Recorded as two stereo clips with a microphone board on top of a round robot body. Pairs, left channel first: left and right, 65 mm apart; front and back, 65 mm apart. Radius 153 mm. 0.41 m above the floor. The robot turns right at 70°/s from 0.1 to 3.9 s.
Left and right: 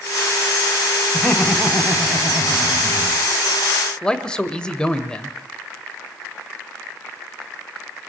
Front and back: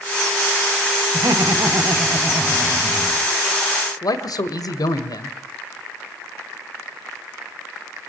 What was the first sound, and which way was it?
Laughter, 155° left.